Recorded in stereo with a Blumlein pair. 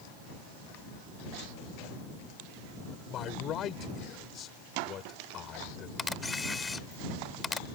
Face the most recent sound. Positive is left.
turn(degrees=10)